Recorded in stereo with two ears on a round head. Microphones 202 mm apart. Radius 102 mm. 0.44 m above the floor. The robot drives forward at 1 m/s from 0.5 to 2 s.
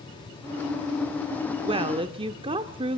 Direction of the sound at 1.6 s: 25° right (ahead or behind).